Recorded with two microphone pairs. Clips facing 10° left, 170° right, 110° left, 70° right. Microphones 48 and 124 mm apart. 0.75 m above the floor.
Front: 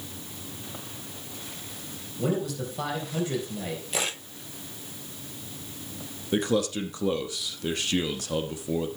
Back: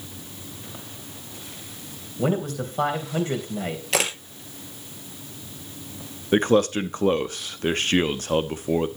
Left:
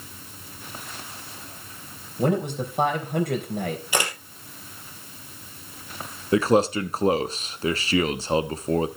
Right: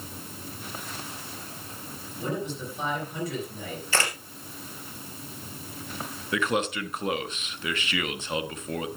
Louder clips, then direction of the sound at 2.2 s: Back 3 dB, left 8 dB; 135° left.